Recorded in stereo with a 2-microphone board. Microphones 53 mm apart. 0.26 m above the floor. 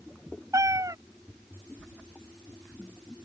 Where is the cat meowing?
85° right.